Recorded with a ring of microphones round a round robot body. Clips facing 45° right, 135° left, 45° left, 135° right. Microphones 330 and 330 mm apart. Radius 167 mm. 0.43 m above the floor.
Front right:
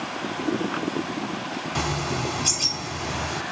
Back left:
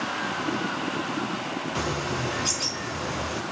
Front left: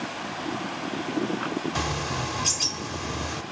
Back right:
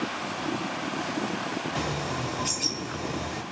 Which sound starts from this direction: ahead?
A bird, at 1.8 s.